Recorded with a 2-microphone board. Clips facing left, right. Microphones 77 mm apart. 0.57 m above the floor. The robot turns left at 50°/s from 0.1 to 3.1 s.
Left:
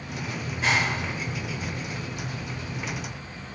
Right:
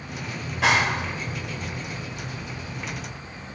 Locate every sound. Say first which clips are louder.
0.4 s a clap: right 4 dB; 90° right, 1.5 m; by 1.8 s 160° right, 1.5 m